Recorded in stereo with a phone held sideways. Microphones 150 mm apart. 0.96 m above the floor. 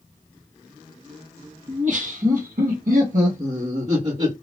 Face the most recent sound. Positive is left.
turn(degrees=-40)  # may be behind; listen again after turning